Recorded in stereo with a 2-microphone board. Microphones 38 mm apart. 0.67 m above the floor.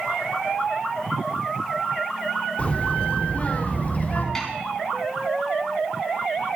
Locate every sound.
2.6 s a child speaking: 35° left (ahead or behind), 1.4 m; by 4.2 s 40° left (ahead or behind), 2.5 m
4.3 s a snare drum: 10° left (ahead or behind), 4 m